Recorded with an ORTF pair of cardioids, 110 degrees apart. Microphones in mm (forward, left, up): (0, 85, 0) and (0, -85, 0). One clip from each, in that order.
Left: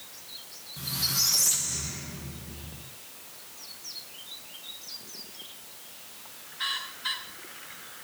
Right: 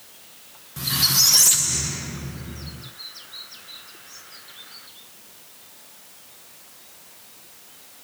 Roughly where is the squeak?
Ahead right.